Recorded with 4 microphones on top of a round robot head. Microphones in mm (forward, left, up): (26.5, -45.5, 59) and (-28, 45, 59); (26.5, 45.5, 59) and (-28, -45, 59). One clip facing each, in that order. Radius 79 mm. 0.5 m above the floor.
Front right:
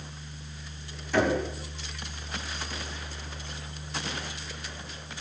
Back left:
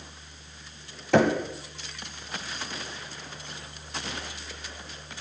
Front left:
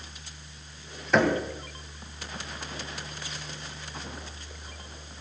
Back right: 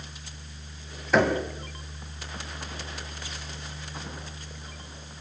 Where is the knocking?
150° left, 2 m.